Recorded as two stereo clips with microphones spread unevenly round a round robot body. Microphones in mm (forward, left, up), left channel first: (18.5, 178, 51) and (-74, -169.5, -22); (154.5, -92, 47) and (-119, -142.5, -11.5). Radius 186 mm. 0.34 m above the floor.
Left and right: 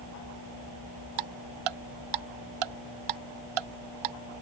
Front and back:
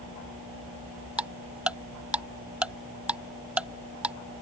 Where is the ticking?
85° right.